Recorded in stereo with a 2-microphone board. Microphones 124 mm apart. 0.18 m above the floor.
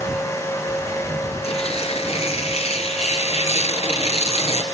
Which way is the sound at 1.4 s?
55° left (ahead or behind).